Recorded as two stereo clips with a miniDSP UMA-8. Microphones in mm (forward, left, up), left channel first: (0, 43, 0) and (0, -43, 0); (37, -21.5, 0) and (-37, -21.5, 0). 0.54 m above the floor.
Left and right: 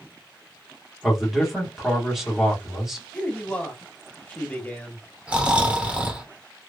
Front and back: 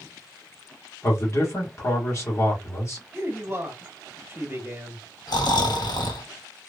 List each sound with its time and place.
1.0 s a man speaking: 5° right, 1.3 m
3.1 s a man speaking: 150° left, 1.0 m
5.3 s snoring: 15° right, 0.8 m